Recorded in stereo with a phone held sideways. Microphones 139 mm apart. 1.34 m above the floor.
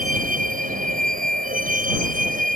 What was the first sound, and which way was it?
A vehicle, 85° right.